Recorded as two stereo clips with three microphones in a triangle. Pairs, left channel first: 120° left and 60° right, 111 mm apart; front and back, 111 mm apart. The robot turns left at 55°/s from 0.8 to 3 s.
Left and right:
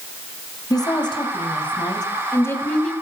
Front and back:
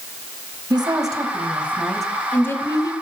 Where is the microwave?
No microwave in this recording.